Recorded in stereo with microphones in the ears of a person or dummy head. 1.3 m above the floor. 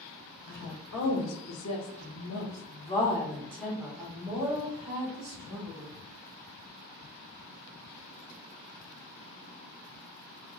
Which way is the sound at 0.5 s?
65° left (ahead or behind).